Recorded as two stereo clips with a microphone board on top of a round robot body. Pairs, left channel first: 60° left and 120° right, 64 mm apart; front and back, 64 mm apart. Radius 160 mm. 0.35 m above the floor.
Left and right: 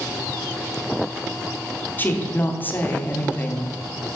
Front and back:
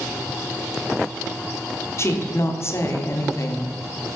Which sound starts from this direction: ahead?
A woman speaking, at 2.0 s.